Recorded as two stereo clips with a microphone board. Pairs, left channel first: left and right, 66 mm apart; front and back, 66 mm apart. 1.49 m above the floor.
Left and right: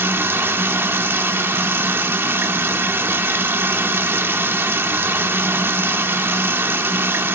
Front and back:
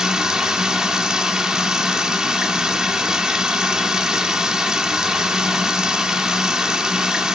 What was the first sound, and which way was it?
Running water, 105° right.